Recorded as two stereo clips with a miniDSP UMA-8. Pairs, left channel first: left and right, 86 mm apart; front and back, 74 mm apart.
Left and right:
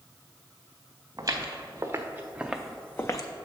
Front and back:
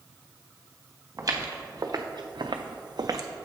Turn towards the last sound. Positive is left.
turn(degrees=135)